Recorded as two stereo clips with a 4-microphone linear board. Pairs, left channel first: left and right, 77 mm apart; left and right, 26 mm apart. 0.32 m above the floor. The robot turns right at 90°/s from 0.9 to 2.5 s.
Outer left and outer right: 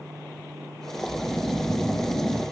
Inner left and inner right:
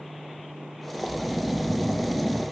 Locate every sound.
1.0 s snoring: 65° right, 3.5 m; by 2.4 s 65° left, 3.5 m